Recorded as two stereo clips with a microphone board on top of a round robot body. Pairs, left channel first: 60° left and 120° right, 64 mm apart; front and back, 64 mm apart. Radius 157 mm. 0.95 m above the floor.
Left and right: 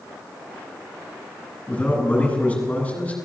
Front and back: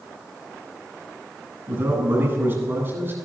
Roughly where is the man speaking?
Behind left.